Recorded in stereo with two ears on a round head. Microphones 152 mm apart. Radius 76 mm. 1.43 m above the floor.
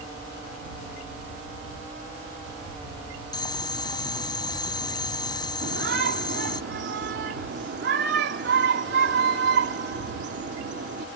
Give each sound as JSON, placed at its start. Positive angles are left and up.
{"t": 3.3, "sound": "boiling", "side_deg": 25}
{"t": 5.6, "sound": "a shout", "side_deg": -70}